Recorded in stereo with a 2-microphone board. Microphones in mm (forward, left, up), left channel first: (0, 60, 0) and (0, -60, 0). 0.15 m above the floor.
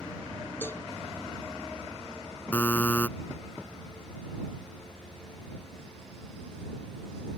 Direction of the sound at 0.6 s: 15° left (ahead or behind).